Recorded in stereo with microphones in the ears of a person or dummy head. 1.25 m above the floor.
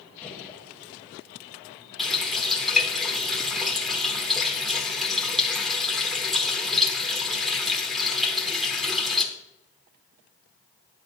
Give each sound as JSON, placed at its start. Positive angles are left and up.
{"t": 0.2, "sound": "a gunshot", "side_deg": 5, "distance_m": 1.6}
{"t": 2.0, "sound": "a running tap", "side_deg": 0, "distance_m": 1.0}